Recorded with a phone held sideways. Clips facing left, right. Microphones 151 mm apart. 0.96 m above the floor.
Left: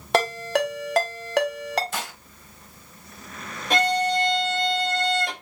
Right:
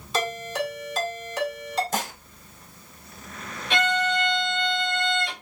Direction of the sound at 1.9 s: 40° right (ahead or behind).